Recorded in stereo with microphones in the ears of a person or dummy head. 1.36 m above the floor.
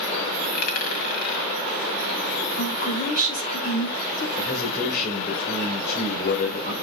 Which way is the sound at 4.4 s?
50° left (ahead or behind).